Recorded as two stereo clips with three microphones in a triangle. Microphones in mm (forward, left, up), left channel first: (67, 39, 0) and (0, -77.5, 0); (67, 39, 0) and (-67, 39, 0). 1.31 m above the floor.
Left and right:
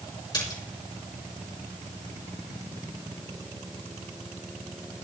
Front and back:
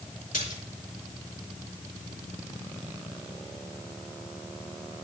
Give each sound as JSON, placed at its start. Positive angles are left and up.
{"t": 0.3, "sound": "a splash", "azimuth_deg": 0, "distance_m": 4.0}